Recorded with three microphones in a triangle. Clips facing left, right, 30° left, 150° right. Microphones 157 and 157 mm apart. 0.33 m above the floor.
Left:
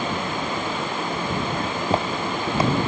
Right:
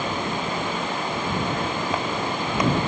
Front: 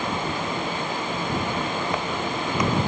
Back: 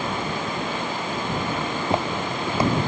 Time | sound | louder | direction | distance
1.6 | footsteps | left 2 dB, back 2 dB | 150° left | ?